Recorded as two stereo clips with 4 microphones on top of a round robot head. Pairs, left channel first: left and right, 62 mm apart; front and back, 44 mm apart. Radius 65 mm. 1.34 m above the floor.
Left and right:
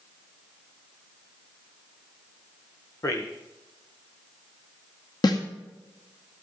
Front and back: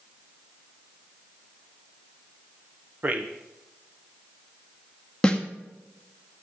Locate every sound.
3.0 s a man speaking: 125° left, 1.1 m
5.2 s a snare drum: 70° left, 1.7 m